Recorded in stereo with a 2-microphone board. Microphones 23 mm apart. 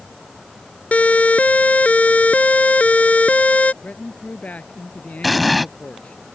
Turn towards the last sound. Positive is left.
turn(degrees=-5)  # may be behind; listen again after turning